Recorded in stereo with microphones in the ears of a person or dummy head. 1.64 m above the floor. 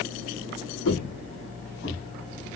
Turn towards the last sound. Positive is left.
turn(degrees=60)  # may be behind; listen again after turning